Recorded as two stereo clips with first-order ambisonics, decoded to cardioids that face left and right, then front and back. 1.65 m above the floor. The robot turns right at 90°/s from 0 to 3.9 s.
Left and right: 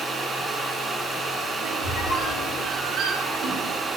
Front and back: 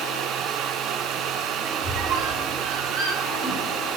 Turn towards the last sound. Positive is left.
turn(degrees=-55)